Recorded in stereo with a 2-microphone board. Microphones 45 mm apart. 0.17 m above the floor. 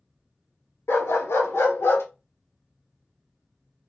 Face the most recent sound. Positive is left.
turn(degrees=55)  # may be behind; listen again after turning